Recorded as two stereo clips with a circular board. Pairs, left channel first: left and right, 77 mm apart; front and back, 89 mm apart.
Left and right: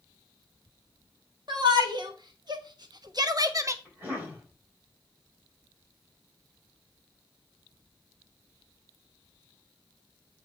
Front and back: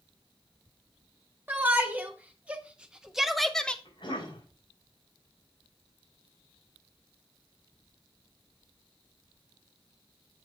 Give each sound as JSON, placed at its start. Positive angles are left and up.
{"t": 1.5, "sound": "a shout", "azimuth_deg": -110, "distance_m": 1.8}
{"t": 3.9, "sound": "a cough", "azimuth_deg": -25, "distance_m": 5.5}